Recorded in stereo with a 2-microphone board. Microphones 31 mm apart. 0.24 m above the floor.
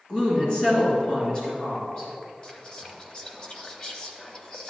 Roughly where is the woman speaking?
Left.